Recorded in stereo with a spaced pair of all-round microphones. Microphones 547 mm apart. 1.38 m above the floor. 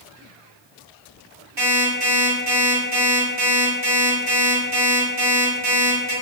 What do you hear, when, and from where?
1.6 s an alarm clock: 45° right (ahead or behind), 1.6 m